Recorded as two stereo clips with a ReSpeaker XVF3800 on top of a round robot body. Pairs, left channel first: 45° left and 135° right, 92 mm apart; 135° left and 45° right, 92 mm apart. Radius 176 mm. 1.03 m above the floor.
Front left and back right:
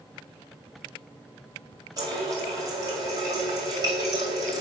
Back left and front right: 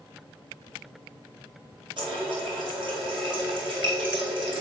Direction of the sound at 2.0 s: 80° right.